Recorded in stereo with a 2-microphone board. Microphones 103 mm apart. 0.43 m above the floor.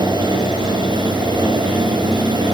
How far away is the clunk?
No clunk in this recording.